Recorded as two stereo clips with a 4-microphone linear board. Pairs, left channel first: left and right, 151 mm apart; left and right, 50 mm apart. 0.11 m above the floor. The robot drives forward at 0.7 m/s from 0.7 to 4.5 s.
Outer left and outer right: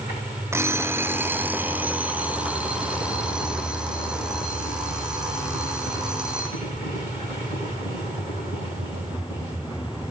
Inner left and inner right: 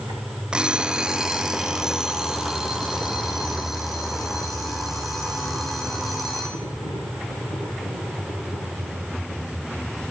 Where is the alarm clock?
15° right (ahead or behind), 0.9 m; by 6.6 s 5° right (ahead or behind), 3.5 m.